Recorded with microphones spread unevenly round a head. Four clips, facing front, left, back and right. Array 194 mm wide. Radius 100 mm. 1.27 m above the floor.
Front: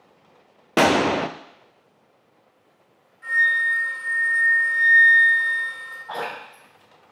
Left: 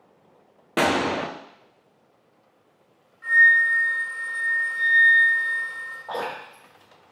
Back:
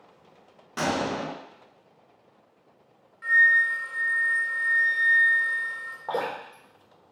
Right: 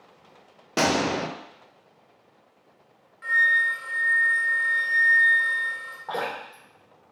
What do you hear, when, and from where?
0.8 s a gunshot: straight ahead, 0.5 m
3.2 s a flute: 110° right, 2 m
6.1 s dripping: 170° right, 2.5 m